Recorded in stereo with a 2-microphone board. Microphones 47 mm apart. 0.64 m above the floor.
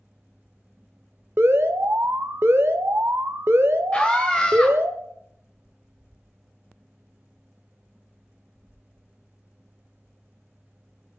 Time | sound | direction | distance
1.4 | an alarm | 55° right (ahead or behind) | 1.1 m
3.9 | a scream | 20° left (ahead or behind) | 2.5 m